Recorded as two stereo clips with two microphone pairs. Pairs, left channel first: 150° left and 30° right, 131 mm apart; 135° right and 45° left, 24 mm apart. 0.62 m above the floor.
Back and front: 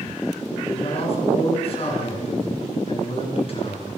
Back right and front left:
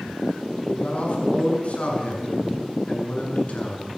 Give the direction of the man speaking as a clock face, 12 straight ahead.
6 o'clock.